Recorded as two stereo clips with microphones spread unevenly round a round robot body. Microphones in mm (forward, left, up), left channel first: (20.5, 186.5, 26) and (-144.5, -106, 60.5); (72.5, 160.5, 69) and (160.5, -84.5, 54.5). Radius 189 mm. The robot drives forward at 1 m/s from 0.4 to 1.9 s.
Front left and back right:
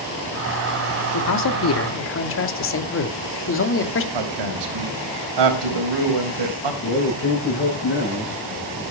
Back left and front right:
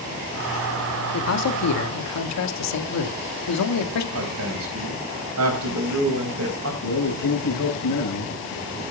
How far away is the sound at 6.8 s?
About 10 m.